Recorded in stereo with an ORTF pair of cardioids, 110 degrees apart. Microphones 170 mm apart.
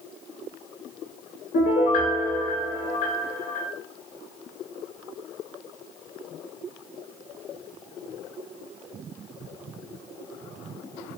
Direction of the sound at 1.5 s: 65° left.